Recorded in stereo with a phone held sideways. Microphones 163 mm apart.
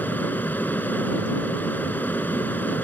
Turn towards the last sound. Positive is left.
turn(degrees=10)  # may be behind; listen again after turning